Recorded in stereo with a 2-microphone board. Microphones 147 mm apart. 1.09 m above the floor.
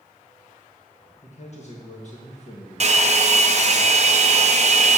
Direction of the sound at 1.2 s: 50° left (ahead or behind).